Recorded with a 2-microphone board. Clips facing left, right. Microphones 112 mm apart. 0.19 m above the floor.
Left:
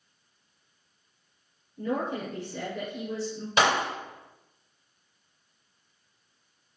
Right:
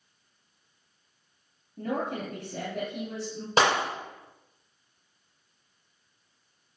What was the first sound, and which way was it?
A woman speaking, 70° right (ahead or behind).